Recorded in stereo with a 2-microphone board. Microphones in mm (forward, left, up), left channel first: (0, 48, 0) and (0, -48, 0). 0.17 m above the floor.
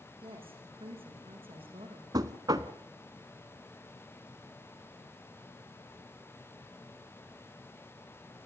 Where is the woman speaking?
75° right (ahead or behind), 8 m.